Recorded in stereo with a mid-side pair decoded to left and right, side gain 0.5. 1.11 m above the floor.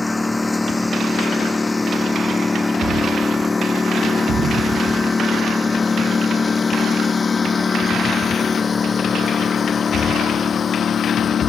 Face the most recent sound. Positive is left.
turn(degrees=45)